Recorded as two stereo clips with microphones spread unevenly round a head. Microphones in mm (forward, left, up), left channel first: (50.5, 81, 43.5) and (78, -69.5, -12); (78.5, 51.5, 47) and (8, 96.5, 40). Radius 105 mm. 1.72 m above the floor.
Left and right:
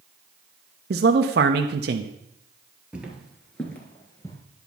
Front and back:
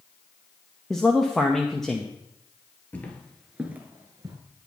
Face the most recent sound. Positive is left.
turn(degrees=125)